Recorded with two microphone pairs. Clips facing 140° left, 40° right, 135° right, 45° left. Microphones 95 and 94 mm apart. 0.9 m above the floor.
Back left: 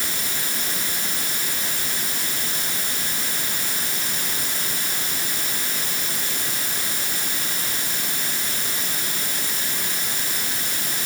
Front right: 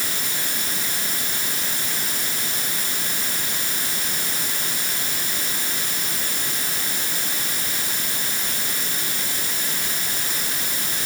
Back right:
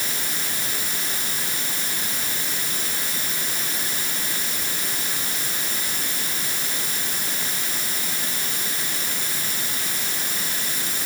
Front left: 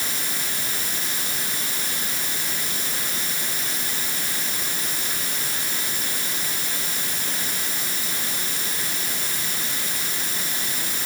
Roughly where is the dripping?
I don't hear dripping.